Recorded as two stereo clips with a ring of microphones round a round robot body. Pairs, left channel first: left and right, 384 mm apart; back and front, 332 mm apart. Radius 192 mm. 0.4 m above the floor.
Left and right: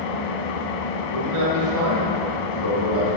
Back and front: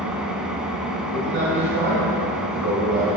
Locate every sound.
0.0 s an engine running: 90° left, 0.9 m
1.1 s a man speaking: 55° right, 2 m